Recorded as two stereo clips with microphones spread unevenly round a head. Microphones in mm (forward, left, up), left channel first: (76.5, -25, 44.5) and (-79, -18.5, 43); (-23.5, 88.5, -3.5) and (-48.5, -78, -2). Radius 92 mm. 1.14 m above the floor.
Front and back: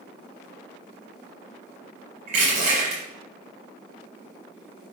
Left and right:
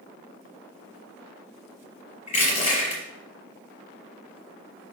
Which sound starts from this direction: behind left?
Crushing, at 2.3 s.